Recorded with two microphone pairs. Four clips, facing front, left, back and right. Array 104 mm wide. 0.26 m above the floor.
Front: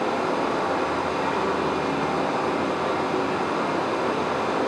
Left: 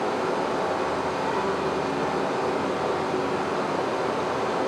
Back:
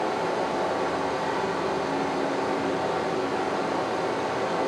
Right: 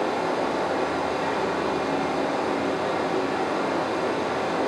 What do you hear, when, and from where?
0.0 s running water: 5° left, 1.5 m